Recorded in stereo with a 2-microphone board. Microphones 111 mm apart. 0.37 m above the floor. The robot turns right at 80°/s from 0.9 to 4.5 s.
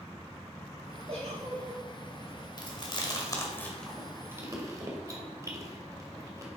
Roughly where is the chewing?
Left.